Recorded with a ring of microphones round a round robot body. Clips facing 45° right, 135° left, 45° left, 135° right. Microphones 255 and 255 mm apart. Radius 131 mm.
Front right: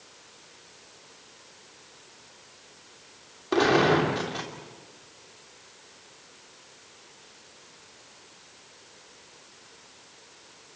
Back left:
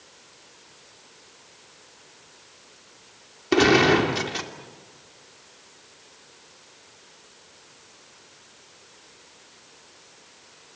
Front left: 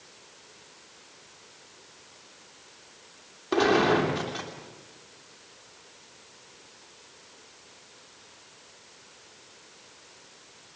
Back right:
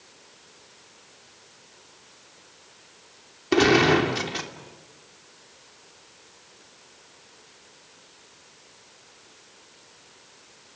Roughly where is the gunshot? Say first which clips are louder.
Back left 4 dB, back right 4 dB; behind.